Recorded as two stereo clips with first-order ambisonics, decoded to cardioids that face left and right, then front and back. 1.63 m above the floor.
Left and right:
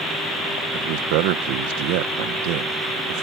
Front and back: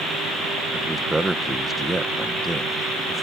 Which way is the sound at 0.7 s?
95° right.